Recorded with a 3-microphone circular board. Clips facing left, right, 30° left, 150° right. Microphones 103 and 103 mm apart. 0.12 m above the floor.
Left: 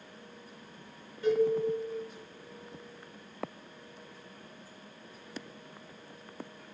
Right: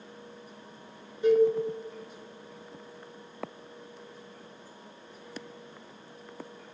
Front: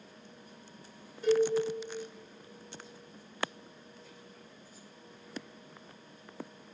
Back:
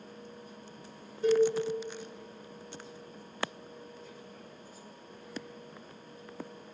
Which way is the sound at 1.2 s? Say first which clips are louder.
Right 5 dB, back 2 dB; 130° right.